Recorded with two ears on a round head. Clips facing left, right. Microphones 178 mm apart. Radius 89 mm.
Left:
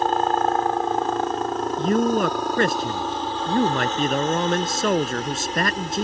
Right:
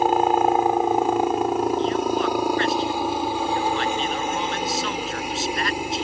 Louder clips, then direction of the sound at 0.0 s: Right 2 dB; 10° right (ahead or behind).